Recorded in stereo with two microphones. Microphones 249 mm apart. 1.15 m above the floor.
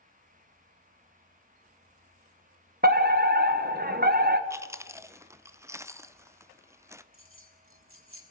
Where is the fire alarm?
40° right (ahead or behind), 1.4 m.